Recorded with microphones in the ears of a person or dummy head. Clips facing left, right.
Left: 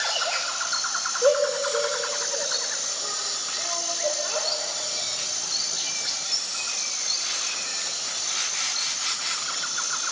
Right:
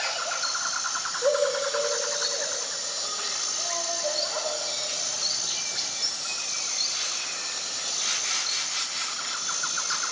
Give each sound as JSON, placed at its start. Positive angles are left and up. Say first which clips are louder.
{"t": 1.2, "sound": "a shout", "louder": "left 3 dB", "side_deg": 50, "distance_m": 5.0}